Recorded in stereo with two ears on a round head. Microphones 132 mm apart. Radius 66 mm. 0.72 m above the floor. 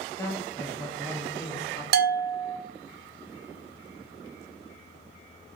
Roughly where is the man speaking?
Centre.